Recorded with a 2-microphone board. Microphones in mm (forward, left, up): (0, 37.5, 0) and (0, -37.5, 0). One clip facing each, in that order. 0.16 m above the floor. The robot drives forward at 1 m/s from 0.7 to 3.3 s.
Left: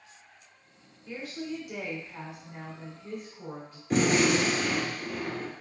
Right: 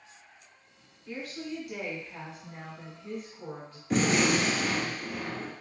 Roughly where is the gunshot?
Centre.